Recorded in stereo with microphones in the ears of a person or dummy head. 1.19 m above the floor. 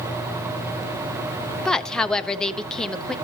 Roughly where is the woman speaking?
Centre.